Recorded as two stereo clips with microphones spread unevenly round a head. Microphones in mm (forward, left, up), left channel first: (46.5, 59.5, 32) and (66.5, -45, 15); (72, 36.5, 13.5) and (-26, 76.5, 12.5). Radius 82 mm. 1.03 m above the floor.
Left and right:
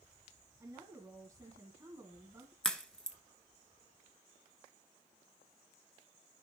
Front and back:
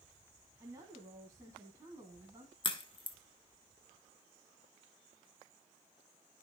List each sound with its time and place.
0.6 s a woman speaking: 145° right, 1.2 m
2.6 s a crack: 20° left, 1.3 m